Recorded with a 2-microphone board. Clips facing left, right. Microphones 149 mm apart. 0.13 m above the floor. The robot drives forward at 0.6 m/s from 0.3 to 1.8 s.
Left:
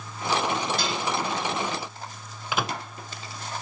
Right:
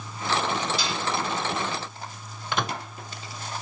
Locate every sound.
0.8 s dishes clattering: 55° left (ahead or behind), 5 m; by 1.0 s 50° left (ahead or behind), 5 m
2.5 s a microwave: 5° left (ahead or behind), 0.9 m